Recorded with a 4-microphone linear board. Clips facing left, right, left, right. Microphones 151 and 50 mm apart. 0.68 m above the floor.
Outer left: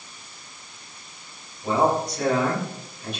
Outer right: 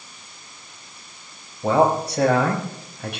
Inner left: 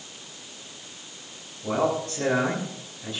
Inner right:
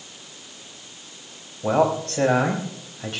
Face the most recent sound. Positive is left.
turn(degrees=-75)  # may be behind; listen again after turning